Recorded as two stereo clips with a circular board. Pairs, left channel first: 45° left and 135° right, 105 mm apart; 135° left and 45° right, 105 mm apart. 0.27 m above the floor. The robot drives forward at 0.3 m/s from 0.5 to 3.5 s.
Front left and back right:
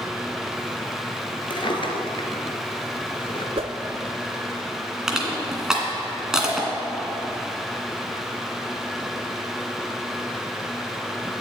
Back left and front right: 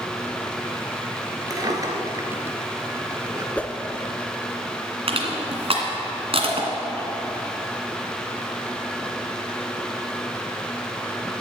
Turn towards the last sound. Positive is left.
turn(degrees=-50)